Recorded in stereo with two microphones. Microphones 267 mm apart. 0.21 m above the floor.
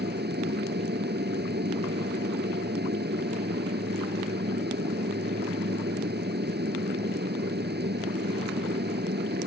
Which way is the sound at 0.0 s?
40° right (ahead or behind).